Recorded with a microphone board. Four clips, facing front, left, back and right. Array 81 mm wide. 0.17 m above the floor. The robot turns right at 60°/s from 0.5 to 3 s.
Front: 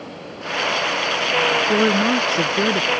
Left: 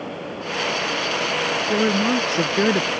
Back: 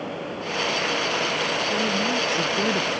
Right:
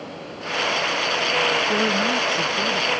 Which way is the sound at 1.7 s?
5° left.